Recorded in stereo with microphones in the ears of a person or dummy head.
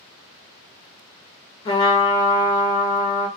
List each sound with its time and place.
1.6 s a trumpet: 30° left (ahead or behind), 0.7 m